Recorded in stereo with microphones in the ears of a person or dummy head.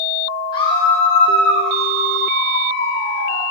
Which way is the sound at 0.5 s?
30° left (ahead or behind).